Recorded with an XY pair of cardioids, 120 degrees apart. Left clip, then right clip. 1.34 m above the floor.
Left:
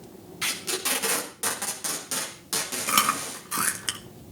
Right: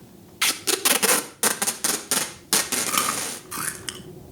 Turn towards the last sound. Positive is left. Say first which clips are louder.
# left 1 dB
turn(degrees=10)